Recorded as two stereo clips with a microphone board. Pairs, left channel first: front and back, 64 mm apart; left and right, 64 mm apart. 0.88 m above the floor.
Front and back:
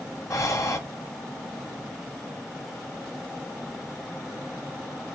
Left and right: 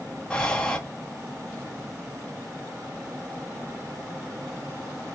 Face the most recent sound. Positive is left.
turn(degrees=15)